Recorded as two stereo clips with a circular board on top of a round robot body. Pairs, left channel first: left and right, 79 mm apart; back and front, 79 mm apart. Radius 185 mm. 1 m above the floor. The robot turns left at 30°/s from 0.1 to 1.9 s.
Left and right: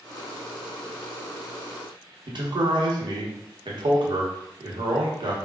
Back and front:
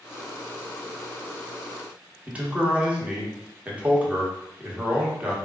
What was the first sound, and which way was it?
A man speaking, 75° right.